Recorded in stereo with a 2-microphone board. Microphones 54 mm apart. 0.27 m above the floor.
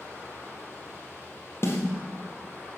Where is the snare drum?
50° left (ahead or behind), 3 m.